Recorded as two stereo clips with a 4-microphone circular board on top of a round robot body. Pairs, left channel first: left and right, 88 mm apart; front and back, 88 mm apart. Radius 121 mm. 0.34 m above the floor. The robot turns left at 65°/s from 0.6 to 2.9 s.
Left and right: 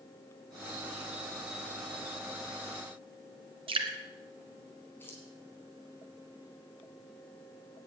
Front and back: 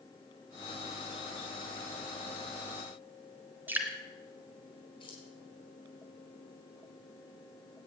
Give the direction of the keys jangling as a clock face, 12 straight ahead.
11 o'clock.